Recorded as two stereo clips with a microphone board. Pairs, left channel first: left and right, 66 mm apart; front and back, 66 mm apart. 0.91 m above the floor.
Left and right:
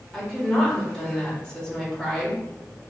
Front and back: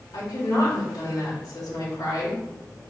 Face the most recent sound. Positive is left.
turn(degrees=10)